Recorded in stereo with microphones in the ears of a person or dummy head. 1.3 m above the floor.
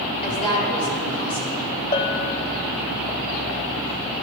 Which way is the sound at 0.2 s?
30° left (ahead or behind).